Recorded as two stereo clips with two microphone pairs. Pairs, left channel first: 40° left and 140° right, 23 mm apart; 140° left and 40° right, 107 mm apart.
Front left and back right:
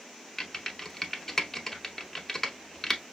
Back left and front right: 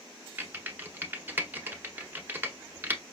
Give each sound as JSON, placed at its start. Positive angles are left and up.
{"t": 0.4, "sound": "typing on a keyboard", "azimuth_deg": 0, "distance_m": 0.6}